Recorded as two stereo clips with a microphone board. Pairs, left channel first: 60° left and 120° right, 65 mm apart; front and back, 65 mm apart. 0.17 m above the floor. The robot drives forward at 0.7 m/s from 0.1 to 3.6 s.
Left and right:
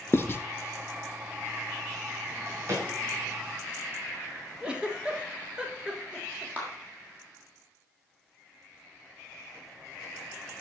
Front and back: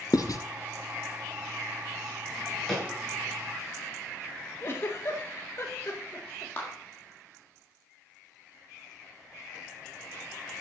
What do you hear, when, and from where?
0.1 s writing: 10° left, 0.8 m; by 0.4 s 15° left, 0.6 m
2.3 s a drawer: 75° right, 6.5 m
4.6 s a giggle: 45° right, 1.5 m
6.6 s a clap: 60° right, 4.5 m